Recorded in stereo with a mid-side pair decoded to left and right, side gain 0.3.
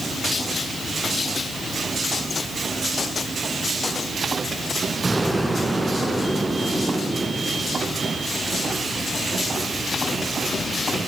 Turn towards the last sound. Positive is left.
turn(degrees=-35)